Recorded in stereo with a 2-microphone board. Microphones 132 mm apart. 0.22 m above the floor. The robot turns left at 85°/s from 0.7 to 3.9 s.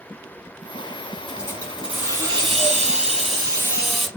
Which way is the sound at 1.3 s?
40° left.